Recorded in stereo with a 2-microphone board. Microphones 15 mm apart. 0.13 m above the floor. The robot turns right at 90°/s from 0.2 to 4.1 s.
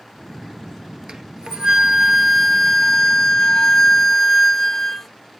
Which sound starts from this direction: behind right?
A flute, at 1.1 s.